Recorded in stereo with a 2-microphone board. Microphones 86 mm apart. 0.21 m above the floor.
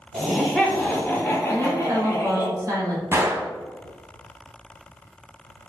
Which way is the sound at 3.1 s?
30° right (ahead or behind).